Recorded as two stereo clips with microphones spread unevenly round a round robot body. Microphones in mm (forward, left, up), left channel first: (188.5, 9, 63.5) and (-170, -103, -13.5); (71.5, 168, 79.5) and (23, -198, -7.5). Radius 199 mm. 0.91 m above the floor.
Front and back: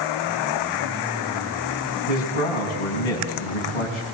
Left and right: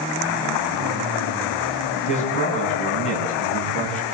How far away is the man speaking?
About 6.5 m.